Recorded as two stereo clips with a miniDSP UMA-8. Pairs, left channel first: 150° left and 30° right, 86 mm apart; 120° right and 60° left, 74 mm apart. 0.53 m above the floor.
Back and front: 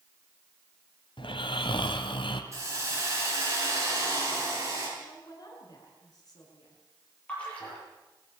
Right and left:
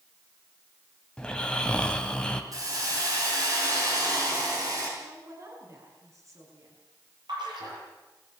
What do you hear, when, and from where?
1.2 s snoring: 160° left, 1.8 m
2.5 s a hiss: 25° left, 6.5 m
5.0 s a woman speaking: 105° left, 5.5 m
7.3 s a splash: 75° left, 9 m